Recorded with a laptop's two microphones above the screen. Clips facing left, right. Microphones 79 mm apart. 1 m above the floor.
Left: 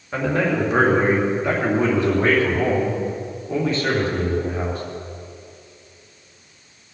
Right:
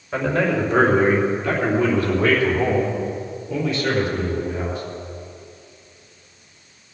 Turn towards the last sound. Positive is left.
turn(degrees=45)  # may be behind; listen again after turning